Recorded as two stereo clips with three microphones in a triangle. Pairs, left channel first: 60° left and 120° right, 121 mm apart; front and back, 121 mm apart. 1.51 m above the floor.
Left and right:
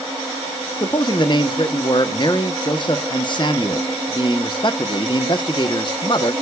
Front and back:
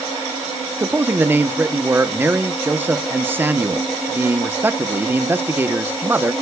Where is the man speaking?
105° left, 0.9 m.